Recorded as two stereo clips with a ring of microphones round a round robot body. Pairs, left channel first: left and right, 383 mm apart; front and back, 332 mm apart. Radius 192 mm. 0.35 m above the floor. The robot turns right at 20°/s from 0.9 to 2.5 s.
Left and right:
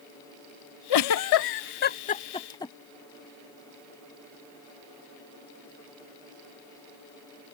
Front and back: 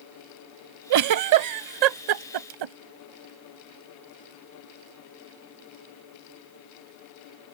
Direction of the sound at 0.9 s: 140° left.